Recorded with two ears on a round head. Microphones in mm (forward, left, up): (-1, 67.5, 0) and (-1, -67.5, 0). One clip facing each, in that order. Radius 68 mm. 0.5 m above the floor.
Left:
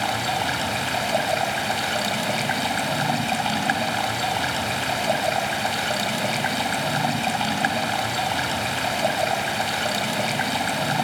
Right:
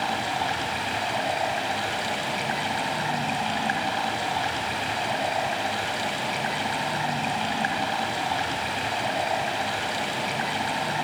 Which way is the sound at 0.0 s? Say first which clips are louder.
Left 2 dB; 65° left (ahead or behind).